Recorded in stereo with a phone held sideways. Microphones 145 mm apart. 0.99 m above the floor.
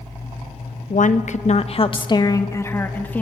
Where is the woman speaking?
60° left (ahead or behind), 1.1 m; by 3.2 s 10° left (ahead or behind), 1.9 m.